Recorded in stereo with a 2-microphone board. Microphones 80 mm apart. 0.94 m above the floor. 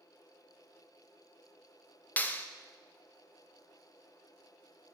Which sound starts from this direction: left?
A clap, at 2.2 s.